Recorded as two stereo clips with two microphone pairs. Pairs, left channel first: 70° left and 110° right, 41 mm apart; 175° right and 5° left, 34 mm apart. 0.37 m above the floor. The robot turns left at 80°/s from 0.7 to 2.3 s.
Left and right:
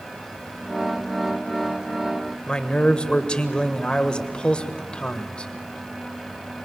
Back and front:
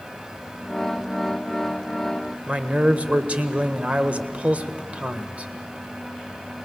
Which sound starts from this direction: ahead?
A man speaking, at 2.5 s.